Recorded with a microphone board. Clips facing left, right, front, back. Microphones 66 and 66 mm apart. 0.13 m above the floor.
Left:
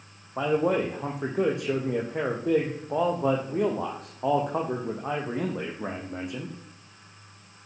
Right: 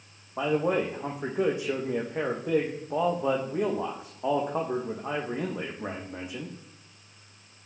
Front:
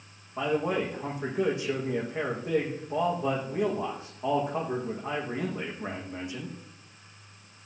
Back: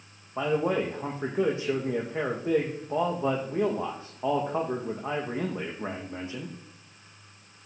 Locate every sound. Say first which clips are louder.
0.4 s a man speaking: left 2 dB, back 2 dB; 120° left, 7 m